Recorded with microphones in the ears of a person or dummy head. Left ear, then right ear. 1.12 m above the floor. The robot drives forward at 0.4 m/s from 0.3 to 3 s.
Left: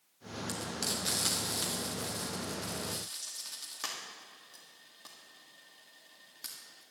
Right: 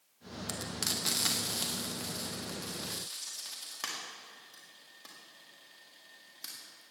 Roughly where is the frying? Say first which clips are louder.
Right 1 dB; centre.